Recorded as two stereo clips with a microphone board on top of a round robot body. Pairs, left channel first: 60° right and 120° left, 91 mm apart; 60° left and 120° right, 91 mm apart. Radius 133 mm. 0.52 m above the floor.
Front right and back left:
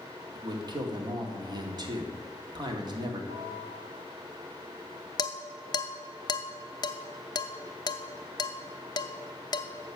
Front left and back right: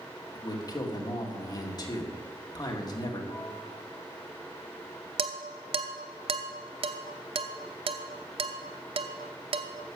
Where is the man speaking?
95° left, 2 m.